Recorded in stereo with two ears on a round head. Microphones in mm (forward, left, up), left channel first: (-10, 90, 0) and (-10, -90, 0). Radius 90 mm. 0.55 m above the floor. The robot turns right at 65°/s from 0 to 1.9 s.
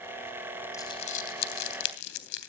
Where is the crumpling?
15° left (ahead or behind), 3 m; by 2.5 s 75° left (ahead or behind), 3 m.